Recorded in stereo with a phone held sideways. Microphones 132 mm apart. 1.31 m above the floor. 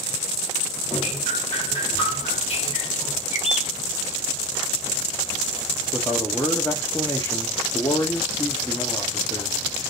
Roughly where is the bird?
Left.